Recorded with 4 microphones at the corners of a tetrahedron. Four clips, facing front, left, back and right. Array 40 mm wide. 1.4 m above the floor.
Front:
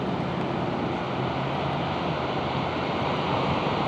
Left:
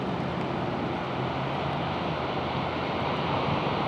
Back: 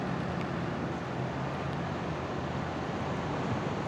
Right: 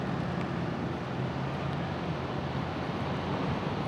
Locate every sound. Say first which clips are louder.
0.0 s a vehicle: left 3 dB, front 6 dB; 30° left